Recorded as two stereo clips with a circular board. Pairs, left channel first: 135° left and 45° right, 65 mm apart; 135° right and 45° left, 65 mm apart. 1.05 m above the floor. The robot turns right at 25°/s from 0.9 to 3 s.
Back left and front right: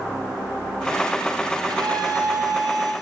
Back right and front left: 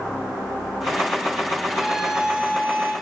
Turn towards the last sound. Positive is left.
turn(degrees=-15)